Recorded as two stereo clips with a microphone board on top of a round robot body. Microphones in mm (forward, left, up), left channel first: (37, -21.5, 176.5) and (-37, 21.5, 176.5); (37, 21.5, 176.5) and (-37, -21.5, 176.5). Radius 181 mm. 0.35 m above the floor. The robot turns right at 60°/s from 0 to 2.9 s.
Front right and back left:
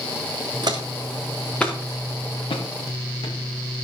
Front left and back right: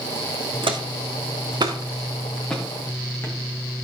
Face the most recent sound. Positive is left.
turn(degrees=-30)